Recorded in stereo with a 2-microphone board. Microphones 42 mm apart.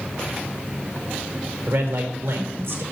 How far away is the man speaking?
About 3.5 m.